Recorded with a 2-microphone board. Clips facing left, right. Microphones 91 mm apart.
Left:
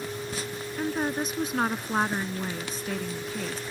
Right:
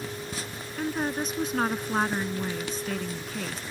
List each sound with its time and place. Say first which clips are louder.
0.8 s a woman speaking: even; 5° left (ahead or behind)